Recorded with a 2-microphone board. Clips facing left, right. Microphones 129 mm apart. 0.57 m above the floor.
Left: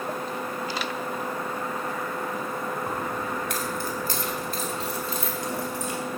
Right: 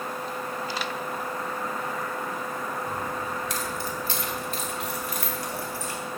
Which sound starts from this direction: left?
Keys jangling, at 2.9 s.